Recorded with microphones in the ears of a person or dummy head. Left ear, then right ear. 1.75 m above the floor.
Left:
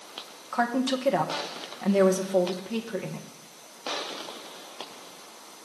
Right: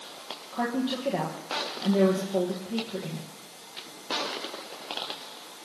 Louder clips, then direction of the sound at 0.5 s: Left 4 dB; 60° left (ahead or behind).